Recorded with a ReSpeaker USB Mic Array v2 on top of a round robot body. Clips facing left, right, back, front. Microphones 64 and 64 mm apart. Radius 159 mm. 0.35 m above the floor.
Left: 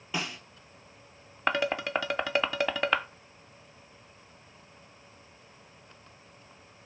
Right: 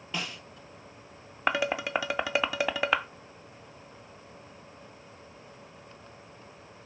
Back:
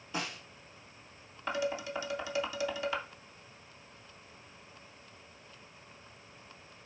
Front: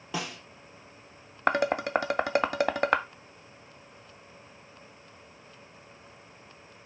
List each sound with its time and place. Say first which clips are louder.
0.1 s a snare drum: left 2 dB, front 3 dB; 5° left, 2 m
1.5 s dishes clattering: even, front 9 dB; 5° right, 0.7 m